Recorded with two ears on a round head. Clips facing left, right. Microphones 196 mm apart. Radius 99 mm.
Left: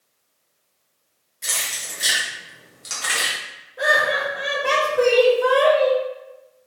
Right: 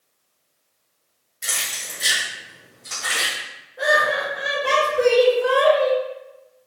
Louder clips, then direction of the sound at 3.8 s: Right 1 dB; 30° left (ahead or behind).